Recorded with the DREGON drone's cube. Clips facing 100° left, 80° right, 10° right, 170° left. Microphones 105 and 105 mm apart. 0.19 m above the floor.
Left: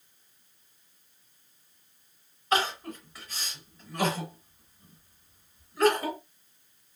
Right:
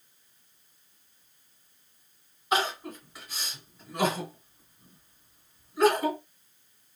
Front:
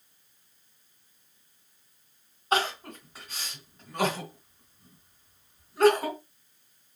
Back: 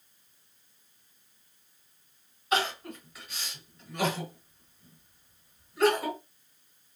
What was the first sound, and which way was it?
Crying, 10° right.